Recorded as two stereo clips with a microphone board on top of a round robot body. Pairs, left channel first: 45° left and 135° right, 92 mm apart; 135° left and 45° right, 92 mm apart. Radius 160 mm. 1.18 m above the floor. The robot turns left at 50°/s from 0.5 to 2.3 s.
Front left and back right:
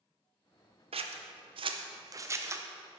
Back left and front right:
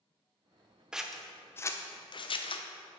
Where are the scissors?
125° right, 0.7 m; by 3.0 s 165° left, 0.7 m.